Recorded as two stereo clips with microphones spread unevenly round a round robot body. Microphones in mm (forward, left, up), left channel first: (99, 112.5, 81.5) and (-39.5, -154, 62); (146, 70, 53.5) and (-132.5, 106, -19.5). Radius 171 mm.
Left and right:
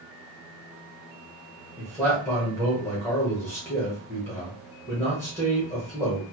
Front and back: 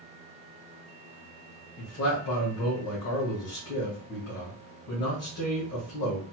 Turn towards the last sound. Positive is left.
turn(degrees=-20)